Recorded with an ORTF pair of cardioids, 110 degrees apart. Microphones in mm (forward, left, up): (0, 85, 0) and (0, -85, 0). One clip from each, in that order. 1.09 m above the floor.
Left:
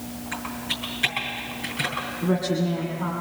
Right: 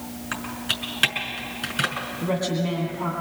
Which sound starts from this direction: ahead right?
Typing on a keyboard, at 0.3 s.